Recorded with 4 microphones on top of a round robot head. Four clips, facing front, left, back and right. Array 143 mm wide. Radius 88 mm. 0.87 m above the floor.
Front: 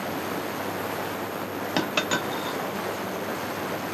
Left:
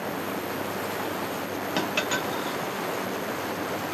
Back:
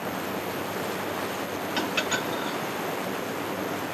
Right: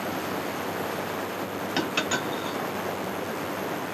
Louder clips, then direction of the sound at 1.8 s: Even, front 3 dB; 5° right.